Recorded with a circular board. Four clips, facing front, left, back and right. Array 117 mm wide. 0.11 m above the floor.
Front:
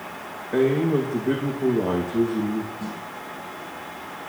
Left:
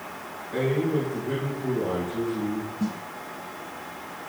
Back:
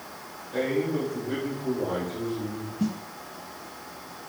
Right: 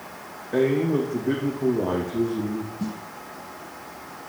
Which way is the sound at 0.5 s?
35° right.